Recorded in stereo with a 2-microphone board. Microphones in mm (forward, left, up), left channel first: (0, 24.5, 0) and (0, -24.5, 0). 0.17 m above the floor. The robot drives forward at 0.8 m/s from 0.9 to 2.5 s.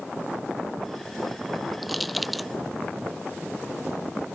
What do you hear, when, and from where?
1.8 s crushing: centre (ahead or behind)